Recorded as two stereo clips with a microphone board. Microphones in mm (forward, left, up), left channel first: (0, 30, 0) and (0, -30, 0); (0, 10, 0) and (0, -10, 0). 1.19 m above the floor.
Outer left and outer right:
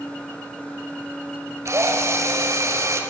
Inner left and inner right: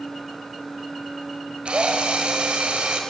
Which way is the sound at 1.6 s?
55° right (ahead or behind).